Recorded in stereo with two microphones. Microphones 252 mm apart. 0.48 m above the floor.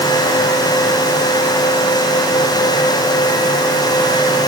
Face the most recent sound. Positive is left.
No sound to turn to.